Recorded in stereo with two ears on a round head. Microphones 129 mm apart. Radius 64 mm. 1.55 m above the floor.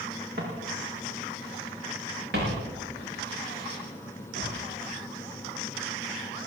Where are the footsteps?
75° right (ahead or behind), 6 m; by 4.6 s 65° right (ahead or behind), 9.5 m.